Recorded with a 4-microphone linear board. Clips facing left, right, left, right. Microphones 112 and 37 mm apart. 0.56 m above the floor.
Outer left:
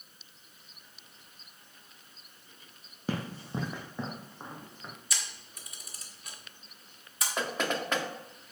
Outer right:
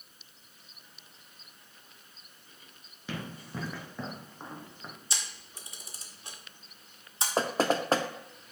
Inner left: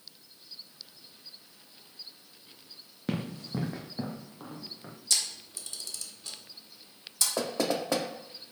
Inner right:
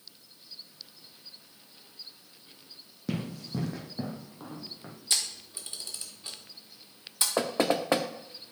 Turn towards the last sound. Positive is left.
turn(degrees=-35)  # may be behind; listen again after turning